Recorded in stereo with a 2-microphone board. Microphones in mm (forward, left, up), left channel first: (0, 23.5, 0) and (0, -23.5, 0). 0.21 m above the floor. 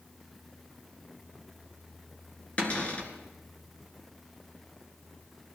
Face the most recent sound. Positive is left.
turn(degrees=30)  # may be behind; listen again after turning